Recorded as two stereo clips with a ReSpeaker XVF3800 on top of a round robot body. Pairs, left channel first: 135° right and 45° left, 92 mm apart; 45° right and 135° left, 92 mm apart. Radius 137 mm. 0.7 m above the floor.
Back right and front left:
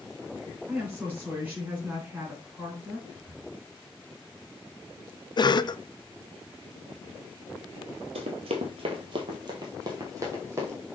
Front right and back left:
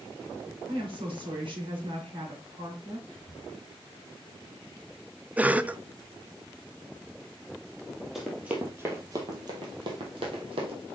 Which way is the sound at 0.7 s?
115° left.